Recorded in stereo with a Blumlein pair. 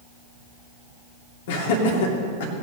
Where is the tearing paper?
I don't hear tearing paper.